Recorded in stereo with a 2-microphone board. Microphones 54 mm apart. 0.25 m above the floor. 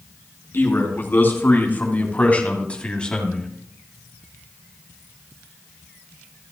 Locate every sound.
0.5 s a man speaking: 45° left (ahead or behind), 3 m; by 3.5 s 10° left (ahead or behind), 1.8 m